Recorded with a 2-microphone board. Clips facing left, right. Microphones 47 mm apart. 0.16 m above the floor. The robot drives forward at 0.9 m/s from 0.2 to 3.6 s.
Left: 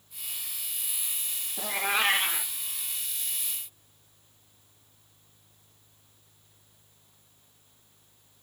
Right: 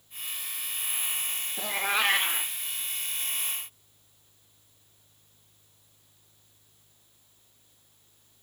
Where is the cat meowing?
5° right (ahead or behind), 0.7 m; by 2.5 s centre (ahead or behind), 1.6 m.